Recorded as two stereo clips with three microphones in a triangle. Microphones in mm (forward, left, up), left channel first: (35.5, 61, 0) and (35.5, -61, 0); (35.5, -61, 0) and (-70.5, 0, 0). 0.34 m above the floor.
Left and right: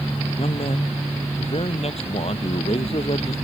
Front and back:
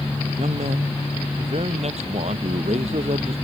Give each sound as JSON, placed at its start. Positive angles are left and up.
{"t": 0.4, "sound": "a man speaking", "azimuth_deg": 125}